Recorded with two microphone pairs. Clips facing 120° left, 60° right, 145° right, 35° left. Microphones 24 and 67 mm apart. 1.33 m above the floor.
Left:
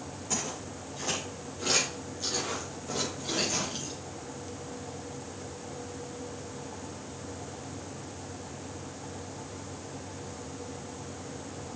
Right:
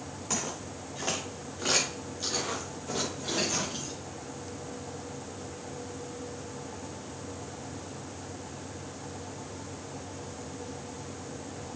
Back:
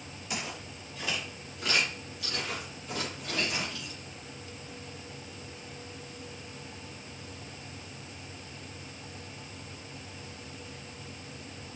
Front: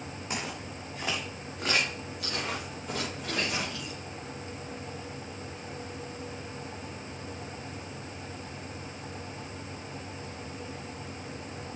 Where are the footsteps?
10° right, 4.5 m; by 3.9 s 15° left, 5 m.